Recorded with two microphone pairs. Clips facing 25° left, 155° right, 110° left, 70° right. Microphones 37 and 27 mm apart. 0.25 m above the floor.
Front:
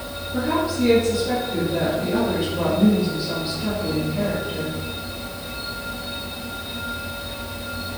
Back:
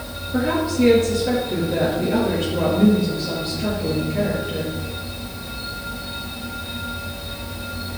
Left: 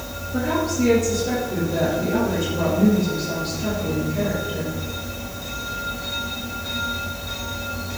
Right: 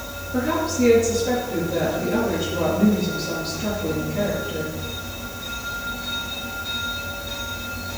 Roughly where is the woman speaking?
Behind right.